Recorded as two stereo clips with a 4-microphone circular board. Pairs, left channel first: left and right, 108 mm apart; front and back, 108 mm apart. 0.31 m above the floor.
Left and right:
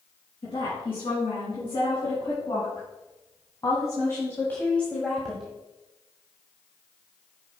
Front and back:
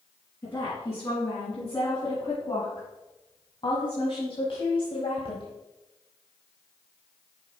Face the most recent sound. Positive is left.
turn(degrees=-10)